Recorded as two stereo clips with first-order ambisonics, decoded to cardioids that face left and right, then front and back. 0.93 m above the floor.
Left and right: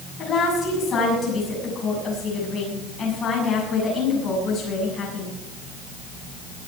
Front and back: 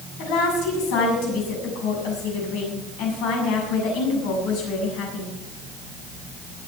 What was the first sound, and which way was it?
A woman speaking, 20° left.